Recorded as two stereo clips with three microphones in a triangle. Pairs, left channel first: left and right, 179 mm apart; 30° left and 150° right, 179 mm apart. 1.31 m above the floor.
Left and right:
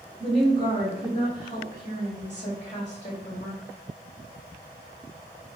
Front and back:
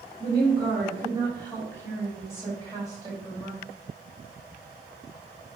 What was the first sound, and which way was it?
A woman speaking, 150° left.